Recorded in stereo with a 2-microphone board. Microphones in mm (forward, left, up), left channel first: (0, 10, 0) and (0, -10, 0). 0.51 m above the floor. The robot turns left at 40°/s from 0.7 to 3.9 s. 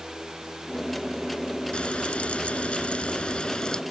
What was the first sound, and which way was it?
Frying, 120° left.